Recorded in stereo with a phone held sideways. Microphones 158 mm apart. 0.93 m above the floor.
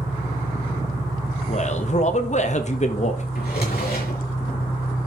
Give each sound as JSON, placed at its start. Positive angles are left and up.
{"t": 0.0, "sound": "an engine running", "side_deg": 65, "distance_m": 3.5}
{"t": 1.5, "sound": "a man speaking", "side_deg": 50, "distance_m": 1.3}
{"t": 3.4, "sound": "a drawer", "side_deg": 80, "distance_m": 4.5}